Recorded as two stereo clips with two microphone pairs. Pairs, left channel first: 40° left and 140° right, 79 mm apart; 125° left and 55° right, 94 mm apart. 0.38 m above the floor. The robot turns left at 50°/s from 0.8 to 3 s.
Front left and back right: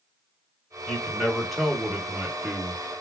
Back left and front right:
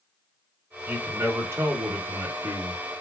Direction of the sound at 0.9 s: 20° right.